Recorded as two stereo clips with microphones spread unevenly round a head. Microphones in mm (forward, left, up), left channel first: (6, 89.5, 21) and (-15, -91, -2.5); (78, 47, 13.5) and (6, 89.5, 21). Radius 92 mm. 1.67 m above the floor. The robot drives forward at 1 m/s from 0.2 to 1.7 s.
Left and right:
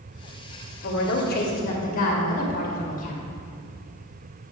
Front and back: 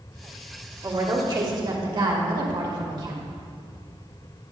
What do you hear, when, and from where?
0.8 s a woman speaking: 105° left, 1.8 m; by 3.2 s 130° left, 2 m